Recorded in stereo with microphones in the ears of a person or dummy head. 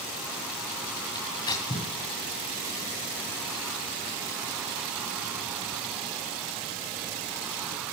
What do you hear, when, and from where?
1.1 s tearing paper: 25° left (ahead or behind), 2.5 m